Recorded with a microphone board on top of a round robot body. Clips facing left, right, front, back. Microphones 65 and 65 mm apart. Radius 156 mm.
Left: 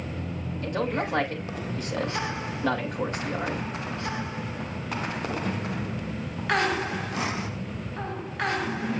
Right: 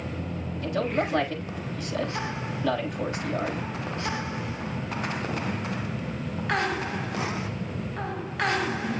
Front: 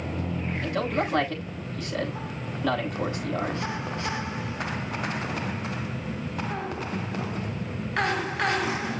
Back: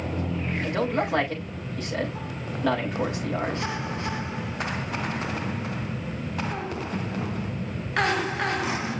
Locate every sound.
0.6 s a man speaking: 145° left, 6.5 m